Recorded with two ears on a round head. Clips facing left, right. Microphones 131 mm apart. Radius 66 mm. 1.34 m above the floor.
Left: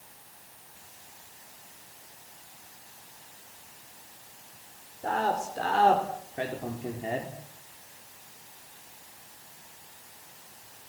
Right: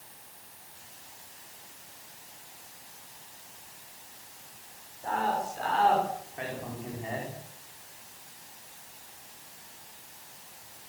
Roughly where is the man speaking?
Left.